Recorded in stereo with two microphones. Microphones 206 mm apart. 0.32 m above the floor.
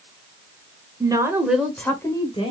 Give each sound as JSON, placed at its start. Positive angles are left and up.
{"t": 1.0, "sound": "a woman speaking", "side_deg": -20, "distance_m": 1.1}